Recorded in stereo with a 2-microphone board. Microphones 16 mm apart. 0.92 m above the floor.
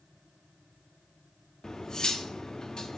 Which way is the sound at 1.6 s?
40° left (ahead or behind).